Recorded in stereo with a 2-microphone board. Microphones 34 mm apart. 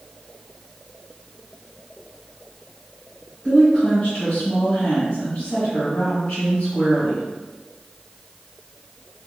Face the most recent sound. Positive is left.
turn(degrees=40)  # may be behind; listen again after turning